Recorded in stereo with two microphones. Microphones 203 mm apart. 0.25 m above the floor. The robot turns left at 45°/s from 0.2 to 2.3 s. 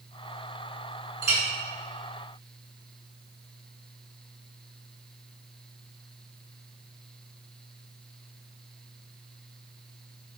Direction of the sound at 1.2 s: 20° right (ahead or behind).